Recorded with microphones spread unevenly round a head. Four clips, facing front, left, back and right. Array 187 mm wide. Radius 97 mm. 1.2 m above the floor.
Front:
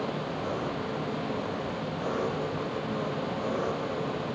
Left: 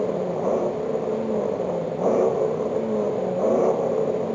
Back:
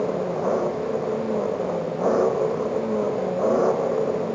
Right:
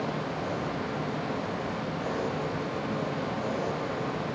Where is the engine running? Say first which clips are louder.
Left 8 dB, back 9 dB; 130° left.